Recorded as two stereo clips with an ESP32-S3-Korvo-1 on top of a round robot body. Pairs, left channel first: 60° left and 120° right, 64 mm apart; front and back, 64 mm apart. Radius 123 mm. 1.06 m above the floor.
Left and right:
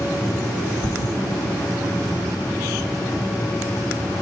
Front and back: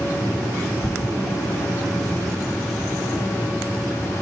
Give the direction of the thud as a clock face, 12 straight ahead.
10 o'clock.